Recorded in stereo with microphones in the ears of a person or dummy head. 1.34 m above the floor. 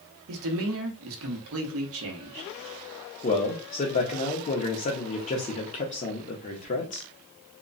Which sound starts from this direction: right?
A man speaking, at 0.3 s.